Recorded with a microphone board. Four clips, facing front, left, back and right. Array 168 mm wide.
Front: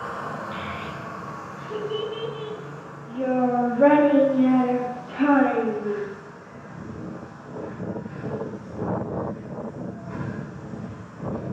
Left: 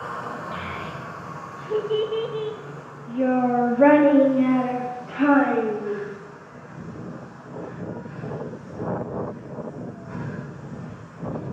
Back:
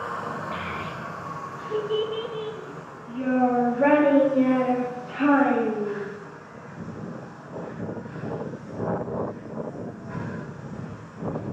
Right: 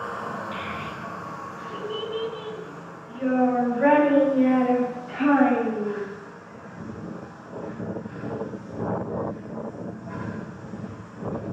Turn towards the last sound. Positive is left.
turn(degrees=60)